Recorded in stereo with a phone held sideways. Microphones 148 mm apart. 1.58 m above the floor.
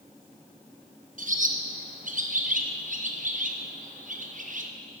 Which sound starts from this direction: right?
A bird, at 1.2 s.